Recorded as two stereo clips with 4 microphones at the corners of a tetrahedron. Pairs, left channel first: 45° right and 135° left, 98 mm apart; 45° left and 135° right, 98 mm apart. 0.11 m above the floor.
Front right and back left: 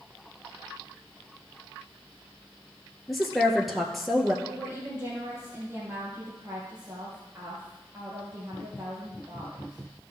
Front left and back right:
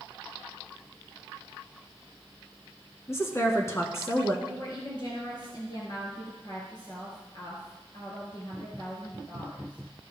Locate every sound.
3.1 s a woman speaking: 45° left, 1.4 m
4.5 s a woman speaking: 75° left, 2.5 m